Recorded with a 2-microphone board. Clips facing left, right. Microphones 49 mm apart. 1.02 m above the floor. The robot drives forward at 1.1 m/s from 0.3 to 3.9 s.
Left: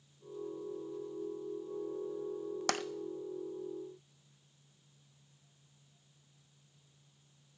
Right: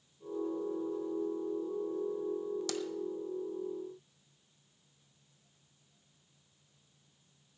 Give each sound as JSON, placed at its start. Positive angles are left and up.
{"t": 2.7, "sound": "tapping", "side_deg": 55, "distance_m": 0.6}